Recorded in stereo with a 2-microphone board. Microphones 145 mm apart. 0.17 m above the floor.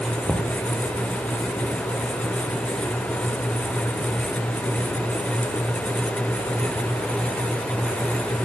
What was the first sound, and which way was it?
Knocking, centre (ahead or behind).